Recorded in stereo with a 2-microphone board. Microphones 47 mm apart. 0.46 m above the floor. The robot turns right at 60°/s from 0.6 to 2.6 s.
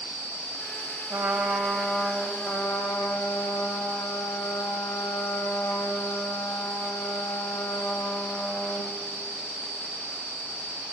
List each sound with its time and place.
1.1 s a trumpet: 35° right, 1.2 m; by 9.0 s 55° left, 1.2 m